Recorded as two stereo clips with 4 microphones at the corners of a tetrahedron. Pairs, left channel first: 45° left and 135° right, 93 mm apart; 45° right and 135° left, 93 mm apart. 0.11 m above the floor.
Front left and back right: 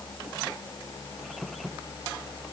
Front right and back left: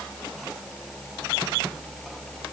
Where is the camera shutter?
I don't hear a camera shutter.